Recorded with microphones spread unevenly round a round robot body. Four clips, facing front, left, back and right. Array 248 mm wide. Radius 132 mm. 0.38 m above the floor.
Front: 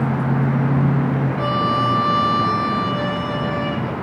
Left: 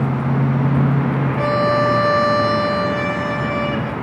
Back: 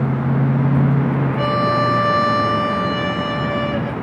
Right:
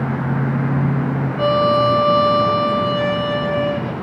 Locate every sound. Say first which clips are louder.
1.4 s a violin: right 3 dB, back 2 dB; 140° left, 1.2 m